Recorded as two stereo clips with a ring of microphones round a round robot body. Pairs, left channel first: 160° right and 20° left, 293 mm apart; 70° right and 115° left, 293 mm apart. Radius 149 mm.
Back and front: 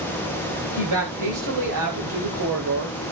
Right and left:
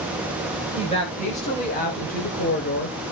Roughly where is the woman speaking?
Ahead.